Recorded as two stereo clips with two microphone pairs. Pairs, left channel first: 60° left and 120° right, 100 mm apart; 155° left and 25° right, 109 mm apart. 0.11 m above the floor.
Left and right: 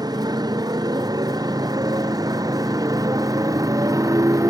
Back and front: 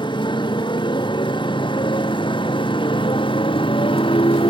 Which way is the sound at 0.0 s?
165° right.